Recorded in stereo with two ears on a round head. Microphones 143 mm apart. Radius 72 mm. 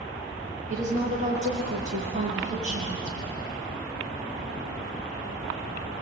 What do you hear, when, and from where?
0.7 s a woman speaking: 45° right (ahead or behind), 8 m